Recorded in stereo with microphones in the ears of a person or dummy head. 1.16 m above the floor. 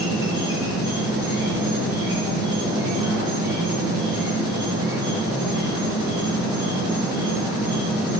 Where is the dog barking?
No dog barking in this recording.